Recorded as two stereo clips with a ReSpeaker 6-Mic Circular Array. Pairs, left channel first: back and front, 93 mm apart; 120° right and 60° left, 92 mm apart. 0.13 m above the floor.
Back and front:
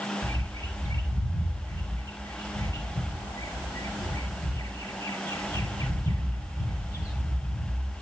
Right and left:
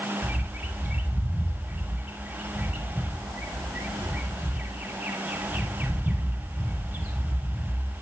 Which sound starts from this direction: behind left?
A bird, at 0.2 s.